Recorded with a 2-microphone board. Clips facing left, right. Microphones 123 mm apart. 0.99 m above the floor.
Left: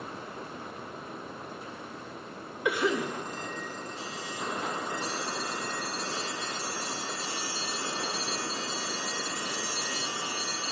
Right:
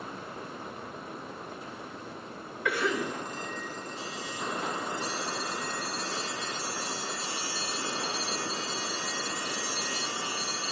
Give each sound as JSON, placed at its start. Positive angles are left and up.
{"t": 2.6, "sound": "a cough", "side_deg": 20, "distance_m": 1.2}